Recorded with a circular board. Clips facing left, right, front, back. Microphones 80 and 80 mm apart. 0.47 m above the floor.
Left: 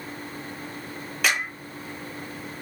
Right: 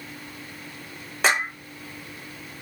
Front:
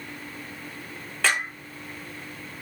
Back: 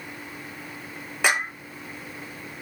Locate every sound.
1.2 s a clap: 120° right, 1.2 m